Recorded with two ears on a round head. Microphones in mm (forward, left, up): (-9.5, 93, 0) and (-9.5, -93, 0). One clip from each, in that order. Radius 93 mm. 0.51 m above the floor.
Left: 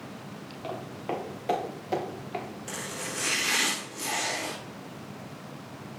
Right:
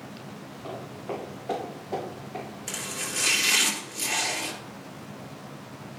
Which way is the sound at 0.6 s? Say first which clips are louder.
Left 2 dB; 80° left.